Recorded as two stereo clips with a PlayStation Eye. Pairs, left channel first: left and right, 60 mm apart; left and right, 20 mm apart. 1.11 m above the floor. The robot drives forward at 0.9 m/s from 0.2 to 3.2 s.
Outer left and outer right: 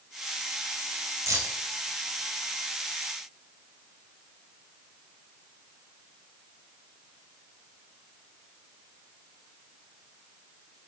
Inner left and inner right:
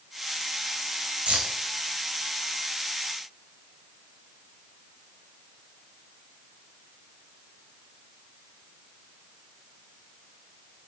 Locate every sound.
1.3 s keys jangling: 65° right (ahead or behind), 3.5 m; by 1.6 s 60° right (ahead or behind), 3.5 m